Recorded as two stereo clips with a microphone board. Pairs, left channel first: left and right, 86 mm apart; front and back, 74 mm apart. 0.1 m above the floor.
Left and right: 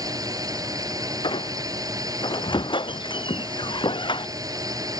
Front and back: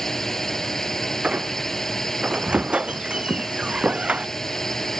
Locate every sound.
0.0 s a drone: 85° right
1.2 s a squeak: 105° left